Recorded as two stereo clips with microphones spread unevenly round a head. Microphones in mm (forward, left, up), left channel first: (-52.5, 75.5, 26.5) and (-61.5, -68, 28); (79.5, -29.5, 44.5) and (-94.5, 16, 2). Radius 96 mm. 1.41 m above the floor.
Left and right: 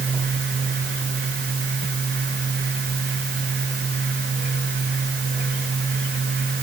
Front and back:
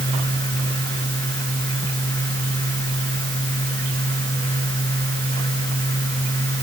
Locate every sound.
Only background noise.